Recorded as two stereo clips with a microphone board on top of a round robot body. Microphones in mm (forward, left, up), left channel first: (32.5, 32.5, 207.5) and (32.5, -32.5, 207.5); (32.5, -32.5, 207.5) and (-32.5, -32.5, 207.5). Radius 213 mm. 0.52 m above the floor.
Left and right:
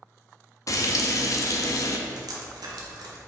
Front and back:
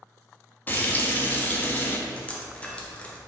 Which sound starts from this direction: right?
Dripping, at 2.1 s.